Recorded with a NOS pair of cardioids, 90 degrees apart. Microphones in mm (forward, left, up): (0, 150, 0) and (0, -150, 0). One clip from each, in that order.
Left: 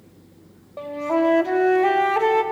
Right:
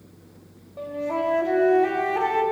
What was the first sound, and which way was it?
A flute, 35° left.